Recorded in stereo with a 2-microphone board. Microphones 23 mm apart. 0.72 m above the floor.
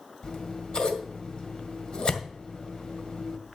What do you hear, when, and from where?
0.2 s scissors: 50° left (ahead or behind), 1.9 m